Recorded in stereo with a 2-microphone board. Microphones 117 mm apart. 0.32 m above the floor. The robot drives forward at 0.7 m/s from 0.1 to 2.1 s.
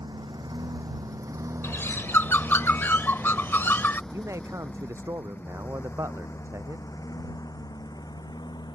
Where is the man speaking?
25° right (ahead or behind).